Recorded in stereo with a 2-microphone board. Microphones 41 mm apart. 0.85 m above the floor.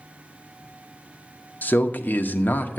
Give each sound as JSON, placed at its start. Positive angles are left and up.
{"t": 1.6, "sound": "a man speaking", "side_deg": 50, "distance_m": 0.8}